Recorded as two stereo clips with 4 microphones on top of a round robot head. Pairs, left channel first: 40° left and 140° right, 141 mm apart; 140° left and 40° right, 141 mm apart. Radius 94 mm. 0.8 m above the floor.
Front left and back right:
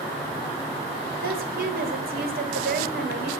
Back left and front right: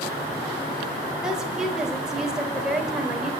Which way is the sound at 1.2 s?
125° right.